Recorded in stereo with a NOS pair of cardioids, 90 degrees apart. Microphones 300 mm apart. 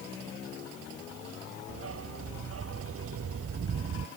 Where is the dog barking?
50° right.